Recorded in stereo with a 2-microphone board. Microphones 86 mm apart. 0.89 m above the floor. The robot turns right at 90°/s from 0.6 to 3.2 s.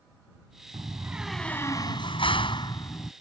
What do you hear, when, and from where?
0.7 s a door slam: 50° right; by 3.1 s 165° left